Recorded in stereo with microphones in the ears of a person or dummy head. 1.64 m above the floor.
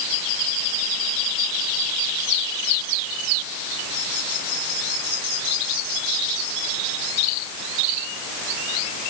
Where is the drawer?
I don't hear a drawer.